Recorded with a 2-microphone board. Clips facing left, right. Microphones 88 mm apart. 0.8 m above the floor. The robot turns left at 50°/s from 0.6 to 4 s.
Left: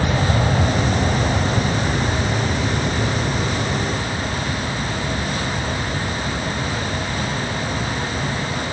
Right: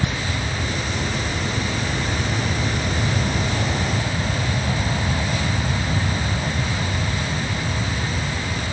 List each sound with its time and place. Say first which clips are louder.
0.0 s an aircraft: left 6 dB; 75° left (ahead or behind); by 8.7 s 70° right (ahead or behind)